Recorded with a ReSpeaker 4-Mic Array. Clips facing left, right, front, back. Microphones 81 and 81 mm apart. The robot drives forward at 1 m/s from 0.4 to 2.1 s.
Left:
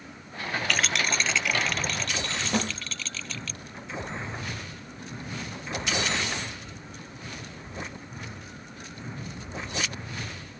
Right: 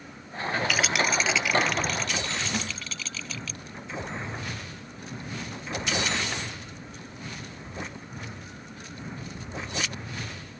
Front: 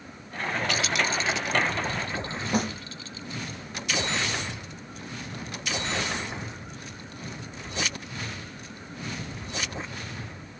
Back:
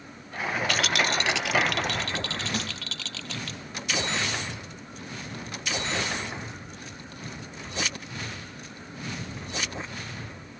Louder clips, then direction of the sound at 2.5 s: Left 4 dB, front 6 dB; 45° left.